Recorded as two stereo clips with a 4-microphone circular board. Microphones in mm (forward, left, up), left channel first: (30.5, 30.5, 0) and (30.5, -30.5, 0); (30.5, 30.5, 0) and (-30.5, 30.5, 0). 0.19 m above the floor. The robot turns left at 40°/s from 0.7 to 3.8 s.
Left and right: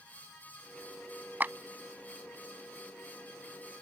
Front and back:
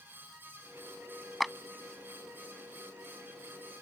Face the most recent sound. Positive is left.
turn(degrees=175)